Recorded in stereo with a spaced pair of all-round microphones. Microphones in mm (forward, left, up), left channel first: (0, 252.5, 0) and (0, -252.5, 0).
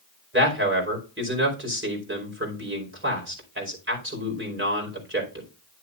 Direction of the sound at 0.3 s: 20° right (ahead or behind).